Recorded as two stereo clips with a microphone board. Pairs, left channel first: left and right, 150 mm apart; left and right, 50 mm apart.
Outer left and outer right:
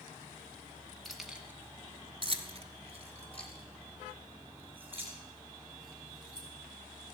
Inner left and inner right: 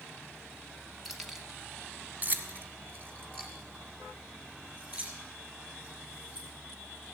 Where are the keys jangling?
Centre (ahead or behind), 1.7 m; by 6.5 s 35° right (ahead or behind), 6.5 m.